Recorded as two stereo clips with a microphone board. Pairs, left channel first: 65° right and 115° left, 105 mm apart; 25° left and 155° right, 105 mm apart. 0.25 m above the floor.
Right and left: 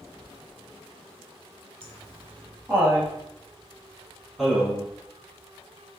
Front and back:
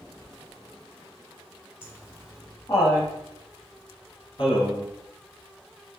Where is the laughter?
70° left, 1.4 m; by 4.9 s 25° left, 2.5 m.